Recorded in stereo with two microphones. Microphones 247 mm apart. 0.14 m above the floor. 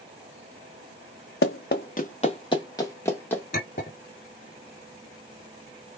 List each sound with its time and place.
1.4 s running footsteps: 55° left (ahead or behind), 0.9 m; by 3.4 s 5° left (ahead or behind), 1.8 m
3.5 s a clink: 35° left (ahead or behind), 1.7 m